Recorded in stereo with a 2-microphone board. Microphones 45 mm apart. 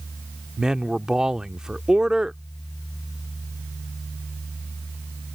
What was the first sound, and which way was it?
A man speaking, 15° right (ahead or behind).